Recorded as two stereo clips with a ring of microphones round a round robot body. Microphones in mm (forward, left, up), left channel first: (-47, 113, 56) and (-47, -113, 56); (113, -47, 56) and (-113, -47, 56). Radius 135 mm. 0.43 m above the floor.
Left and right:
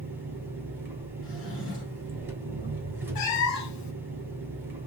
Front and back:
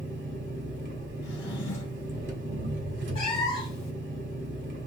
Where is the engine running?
170° right, 1.7 m.